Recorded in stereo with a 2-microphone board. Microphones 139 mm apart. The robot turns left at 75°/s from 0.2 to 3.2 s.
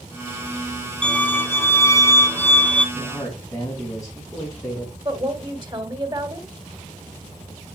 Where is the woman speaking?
35° right (ahead or behind), 2 m.